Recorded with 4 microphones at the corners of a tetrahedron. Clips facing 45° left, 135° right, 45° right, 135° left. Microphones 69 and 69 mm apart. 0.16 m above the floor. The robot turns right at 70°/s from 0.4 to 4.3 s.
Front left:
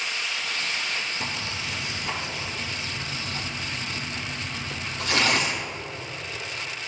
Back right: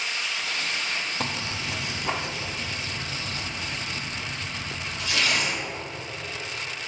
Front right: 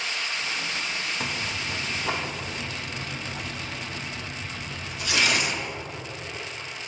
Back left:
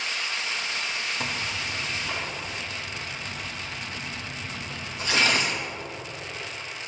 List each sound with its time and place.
1.2 s tearing paper: 135° right, 4 m; by 5.6 s 80° left, 4 m